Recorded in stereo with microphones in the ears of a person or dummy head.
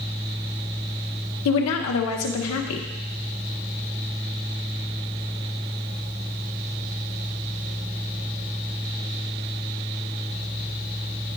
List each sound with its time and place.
1.4 s a woman speaking: 80° left, 1.0 m